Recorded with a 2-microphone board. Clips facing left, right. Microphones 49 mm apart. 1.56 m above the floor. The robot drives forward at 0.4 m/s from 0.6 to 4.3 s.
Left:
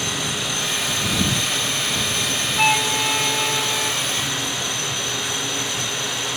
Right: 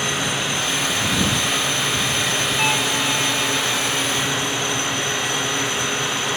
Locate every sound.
2.6 s a flute: 20° left (ahead or behind)